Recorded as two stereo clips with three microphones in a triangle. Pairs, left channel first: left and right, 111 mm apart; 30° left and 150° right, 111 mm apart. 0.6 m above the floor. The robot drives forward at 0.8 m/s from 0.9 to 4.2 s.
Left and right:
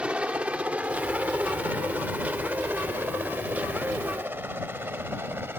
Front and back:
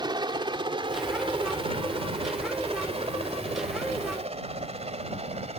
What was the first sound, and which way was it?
A helicopter, 165° right.